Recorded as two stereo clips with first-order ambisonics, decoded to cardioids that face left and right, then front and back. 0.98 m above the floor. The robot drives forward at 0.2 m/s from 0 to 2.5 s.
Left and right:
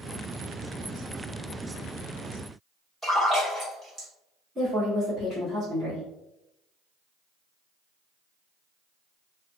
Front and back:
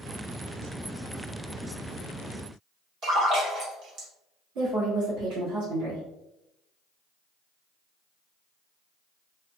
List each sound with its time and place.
3.0 s a splash: 170° right, 1.1 m
4.5 s a woman speaking: 175° right, 1.6 m